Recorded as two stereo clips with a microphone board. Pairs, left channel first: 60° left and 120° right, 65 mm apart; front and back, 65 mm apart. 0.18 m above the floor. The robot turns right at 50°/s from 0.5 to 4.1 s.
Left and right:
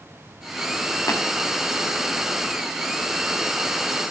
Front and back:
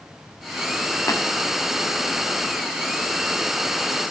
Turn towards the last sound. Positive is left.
turn(degrees=-170)